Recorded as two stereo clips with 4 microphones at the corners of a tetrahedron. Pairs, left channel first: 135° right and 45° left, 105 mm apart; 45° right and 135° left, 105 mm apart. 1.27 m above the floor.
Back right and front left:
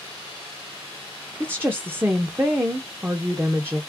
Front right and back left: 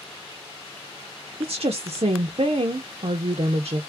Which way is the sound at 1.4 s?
115° left.